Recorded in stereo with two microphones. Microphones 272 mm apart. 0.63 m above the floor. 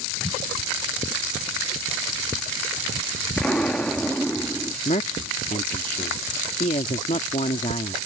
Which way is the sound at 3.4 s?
5° left (ahead or behind).